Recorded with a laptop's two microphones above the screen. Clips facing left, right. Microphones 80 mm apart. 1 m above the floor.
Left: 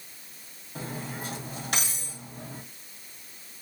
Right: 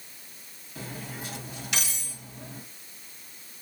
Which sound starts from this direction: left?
Cutlery clinking, at 0.8 s.